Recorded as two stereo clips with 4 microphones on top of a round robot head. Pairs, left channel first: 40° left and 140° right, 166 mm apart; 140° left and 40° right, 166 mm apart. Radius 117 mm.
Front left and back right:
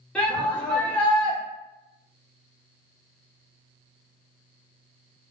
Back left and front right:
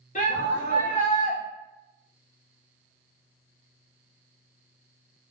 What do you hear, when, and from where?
0.1 s a shout: 120° left, 1.7 m